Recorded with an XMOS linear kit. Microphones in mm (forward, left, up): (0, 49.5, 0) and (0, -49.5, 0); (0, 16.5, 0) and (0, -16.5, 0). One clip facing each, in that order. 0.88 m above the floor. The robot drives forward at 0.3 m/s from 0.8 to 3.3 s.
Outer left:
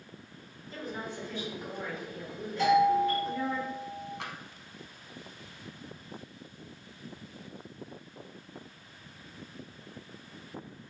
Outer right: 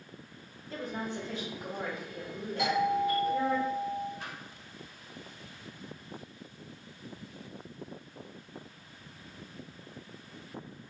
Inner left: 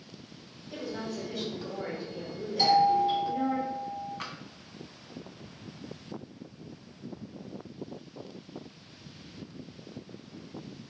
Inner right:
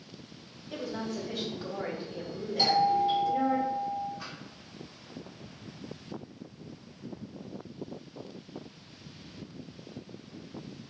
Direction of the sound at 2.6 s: 10° right (ahead or behind).